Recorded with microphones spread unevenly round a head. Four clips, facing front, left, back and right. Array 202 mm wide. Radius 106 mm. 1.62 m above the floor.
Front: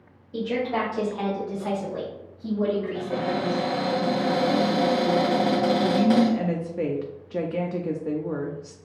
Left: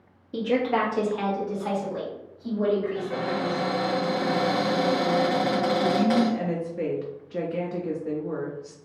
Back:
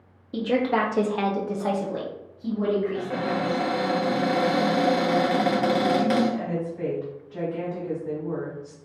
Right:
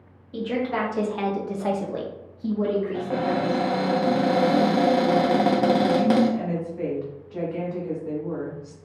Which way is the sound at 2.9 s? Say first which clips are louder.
Right 4 dB, even; 90° right.